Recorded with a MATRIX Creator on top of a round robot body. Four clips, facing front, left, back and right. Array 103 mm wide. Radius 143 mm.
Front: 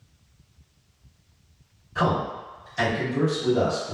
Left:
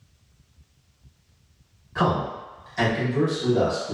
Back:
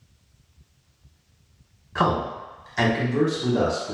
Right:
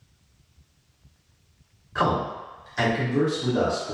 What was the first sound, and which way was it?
A man speaking, straight behind.